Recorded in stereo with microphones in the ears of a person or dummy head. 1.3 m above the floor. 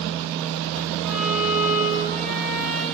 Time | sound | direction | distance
1.0 | a violin | 15° right (ahead or behind) | 5.5 m